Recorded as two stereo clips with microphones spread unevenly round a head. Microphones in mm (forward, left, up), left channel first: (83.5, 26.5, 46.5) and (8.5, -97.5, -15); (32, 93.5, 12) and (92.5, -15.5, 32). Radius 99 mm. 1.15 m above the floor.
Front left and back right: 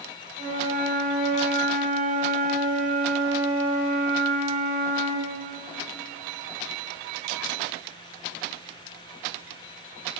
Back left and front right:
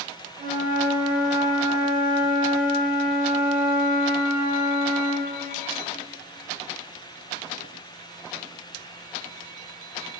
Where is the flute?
125° right, 1.4 m.